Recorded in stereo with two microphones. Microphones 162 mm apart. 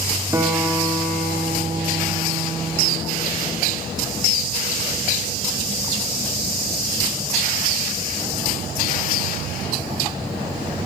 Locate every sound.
0.3 s a guitar: 20° right (ahead or behind), 1.2 m